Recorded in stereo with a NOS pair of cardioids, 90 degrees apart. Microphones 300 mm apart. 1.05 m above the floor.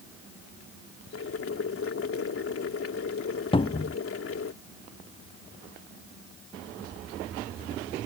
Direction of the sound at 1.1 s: 50° left.